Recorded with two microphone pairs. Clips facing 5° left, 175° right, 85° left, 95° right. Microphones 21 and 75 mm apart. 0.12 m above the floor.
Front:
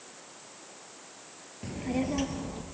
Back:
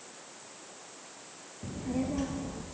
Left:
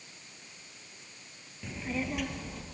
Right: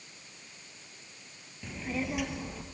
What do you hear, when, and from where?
1.6 s a child speaking: 5° right, 2.0 m; by 2.6 s 20° right, 2.5 m